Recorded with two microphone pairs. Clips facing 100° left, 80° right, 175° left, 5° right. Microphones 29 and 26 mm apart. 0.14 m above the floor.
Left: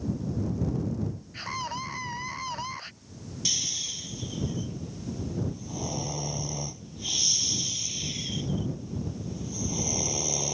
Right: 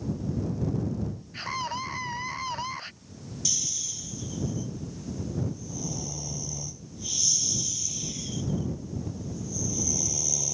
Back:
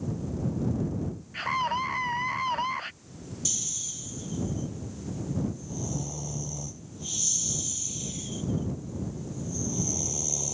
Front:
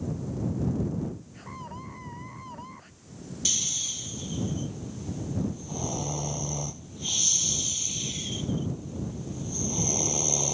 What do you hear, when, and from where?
1.3 s a scream: 165° right
3.5 s snoring: 45° left